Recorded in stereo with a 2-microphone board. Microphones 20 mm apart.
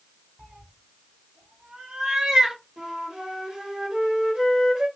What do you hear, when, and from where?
0.4 s a cat meowing: 85° right, 2.5 m; by 2.6 s 30° right (ahead or behind), 1.3 m
2.8 s a flute: 50° right (ahead or behind), 2.0 m